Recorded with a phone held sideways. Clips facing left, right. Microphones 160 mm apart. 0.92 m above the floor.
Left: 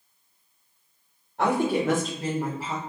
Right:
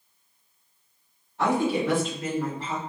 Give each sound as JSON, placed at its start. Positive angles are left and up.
{"t": 1.4, "sound": "a woman speaking", "side_deg": 60, "distance_m": 1.2}